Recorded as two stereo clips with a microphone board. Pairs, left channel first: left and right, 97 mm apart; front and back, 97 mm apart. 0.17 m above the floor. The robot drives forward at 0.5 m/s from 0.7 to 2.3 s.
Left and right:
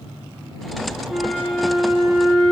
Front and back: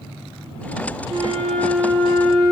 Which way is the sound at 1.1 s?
175° right.